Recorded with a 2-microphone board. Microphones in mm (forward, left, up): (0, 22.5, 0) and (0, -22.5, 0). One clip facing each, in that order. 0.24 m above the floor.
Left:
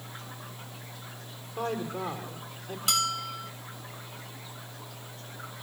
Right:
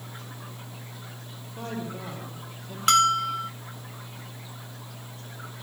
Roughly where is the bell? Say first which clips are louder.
Right 10 dB; right.